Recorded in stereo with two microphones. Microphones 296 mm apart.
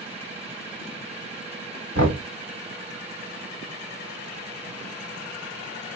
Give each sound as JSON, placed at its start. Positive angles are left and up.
{"t": 1.9, "sound": "knocking", "side_deg": -70, "distance_m": 2.5}